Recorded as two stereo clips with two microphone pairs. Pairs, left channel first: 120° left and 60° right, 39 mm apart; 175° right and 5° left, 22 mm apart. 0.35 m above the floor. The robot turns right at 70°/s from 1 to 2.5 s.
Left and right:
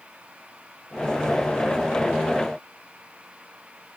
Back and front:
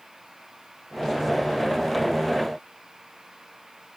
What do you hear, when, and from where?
Only background noise.